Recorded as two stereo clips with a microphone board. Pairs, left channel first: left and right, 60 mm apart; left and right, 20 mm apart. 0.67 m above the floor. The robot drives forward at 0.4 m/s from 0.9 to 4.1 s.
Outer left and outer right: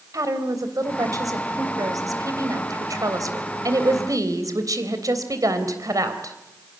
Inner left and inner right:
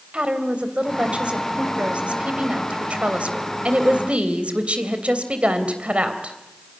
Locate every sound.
0.1 s a woman speaking: 70° right (ahead or behind), 3.5 m; by 6.4 s 75° right (ahead or behind), 3 m